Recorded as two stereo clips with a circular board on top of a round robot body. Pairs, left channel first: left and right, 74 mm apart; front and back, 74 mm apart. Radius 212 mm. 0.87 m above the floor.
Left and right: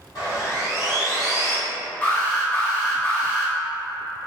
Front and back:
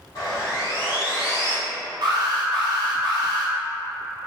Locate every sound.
0.1 s sawing: 45° left, 1.4 m
2.0 s an alarm: 160° left, 0.6 m